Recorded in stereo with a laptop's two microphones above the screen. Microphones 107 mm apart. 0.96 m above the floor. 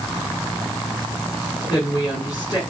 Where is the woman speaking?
40° left (ahead or behind), 9 m.